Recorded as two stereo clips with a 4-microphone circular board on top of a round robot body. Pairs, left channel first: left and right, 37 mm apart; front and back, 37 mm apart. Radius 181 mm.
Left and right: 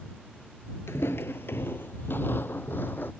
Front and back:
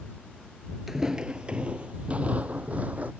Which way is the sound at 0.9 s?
90° left.